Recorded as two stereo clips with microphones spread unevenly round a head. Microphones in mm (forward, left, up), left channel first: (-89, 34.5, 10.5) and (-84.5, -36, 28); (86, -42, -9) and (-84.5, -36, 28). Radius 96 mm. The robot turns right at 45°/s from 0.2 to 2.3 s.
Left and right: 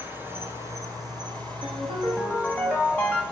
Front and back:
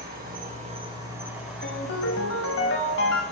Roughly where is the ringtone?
Ahead right.